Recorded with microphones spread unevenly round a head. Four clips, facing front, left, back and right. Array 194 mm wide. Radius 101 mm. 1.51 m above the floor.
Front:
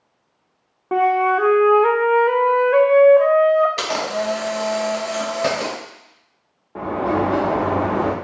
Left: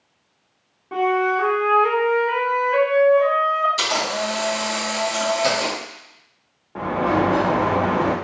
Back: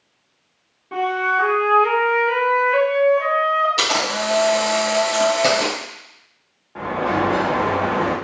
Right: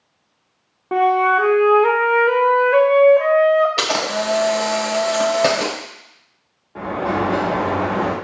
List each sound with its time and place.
0.9 s a flute: 40° right, 0.5 m
3.8 s a camera shutter: 95° right, 1.5 m
6.8 s a sliding door: 25° left, 1.0 m